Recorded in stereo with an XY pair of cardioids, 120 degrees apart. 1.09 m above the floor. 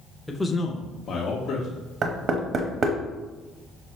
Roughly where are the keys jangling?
I don't hear keys jangling.